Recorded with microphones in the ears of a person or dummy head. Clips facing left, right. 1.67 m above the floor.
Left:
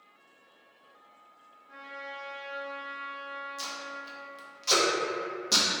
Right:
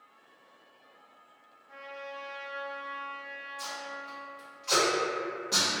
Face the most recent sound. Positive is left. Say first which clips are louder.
# right 1 dB
turn(degrees=60)  # may be behind; listen again after turning